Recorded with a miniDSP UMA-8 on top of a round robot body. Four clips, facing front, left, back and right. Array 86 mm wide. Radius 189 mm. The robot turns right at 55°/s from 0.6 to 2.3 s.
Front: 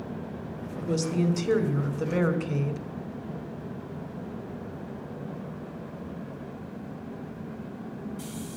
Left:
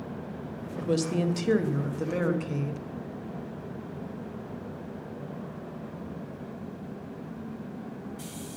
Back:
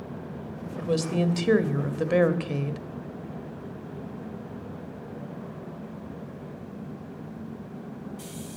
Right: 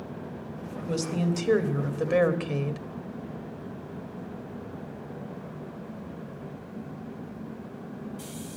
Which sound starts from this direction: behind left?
A woman speaking, at 0.8 s.